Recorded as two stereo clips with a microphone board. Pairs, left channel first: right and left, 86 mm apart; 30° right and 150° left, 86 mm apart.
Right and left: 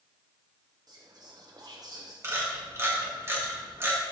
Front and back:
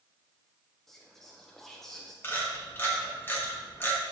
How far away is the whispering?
About 0.6 m.